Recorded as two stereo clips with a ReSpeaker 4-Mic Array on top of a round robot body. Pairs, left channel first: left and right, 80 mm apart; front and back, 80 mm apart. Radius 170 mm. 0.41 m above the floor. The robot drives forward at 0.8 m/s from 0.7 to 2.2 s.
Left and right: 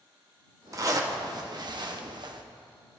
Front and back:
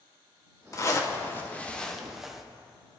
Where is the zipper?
45° right, 1.7 m; by 2.4 s 95° right, 1.4 m.